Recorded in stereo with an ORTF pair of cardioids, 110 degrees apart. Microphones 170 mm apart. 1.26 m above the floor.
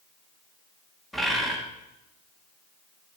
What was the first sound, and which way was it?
A bird, straight ahead.